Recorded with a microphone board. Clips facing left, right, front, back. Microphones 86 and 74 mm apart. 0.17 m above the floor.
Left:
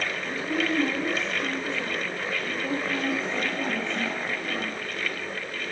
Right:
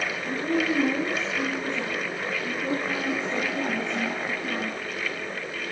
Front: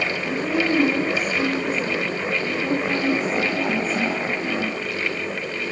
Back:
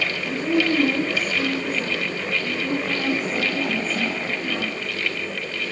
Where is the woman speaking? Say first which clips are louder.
Right 3 dB, back 2 dB; 120° right, 4.5 m; by 4.8 s 70° right, 2.5 m.